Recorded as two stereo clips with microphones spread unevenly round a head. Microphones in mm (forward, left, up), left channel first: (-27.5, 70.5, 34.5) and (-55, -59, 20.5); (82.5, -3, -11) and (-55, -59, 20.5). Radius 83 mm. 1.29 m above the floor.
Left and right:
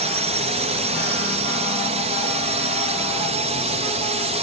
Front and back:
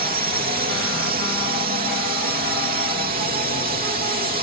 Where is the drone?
130° right.